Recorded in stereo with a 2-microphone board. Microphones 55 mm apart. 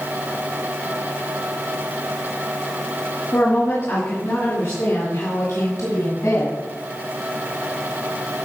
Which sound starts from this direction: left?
A woman speaking, at 3.3 s.